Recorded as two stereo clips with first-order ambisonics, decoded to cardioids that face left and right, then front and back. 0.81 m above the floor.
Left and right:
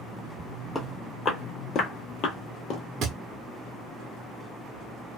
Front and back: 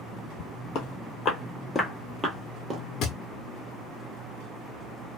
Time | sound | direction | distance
0.8 | footsteps | 15° left | 1.1 m
3.0 | a thud | 40° right | 0.7 m